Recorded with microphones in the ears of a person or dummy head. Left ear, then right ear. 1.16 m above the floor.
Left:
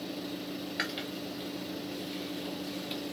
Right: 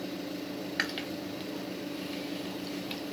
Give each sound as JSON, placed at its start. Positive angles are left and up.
{"t": 0.8, "sound": "chewing", "side_deg": -15, "distance_m": 0.5}